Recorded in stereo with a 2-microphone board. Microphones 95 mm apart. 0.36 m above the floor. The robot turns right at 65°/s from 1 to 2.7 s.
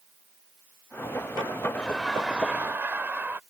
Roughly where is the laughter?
Behind.